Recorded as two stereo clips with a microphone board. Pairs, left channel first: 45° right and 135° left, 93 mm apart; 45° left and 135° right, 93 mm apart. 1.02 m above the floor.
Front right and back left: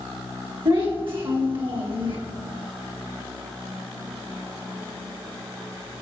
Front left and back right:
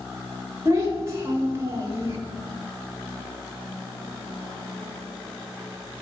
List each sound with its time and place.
0.7 s a child speaking: 165° left, 1.4 m